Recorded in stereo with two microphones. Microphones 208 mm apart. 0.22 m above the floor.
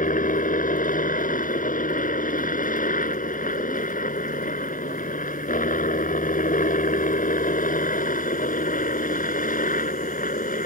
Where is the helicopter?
40° left (ahead or behind).